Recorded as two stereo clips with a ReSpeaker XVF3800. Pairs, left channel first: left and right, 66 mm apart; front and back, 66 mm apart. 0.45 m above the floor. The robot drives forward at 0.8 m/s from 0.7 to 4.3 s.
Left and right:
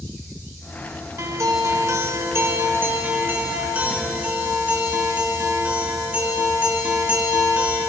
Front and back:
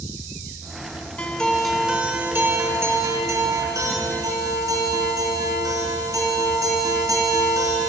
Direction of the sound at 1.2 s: 65° right.